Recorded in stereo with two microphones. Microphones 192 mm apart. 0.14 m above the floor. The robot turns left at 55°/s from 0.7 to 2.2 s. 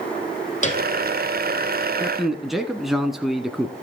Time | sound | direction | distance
0.6 | a piano | 35° left (ahead or behind) | 3 m
2.0 | a man speaking | 5° right (ahead or behind) | 1.1 m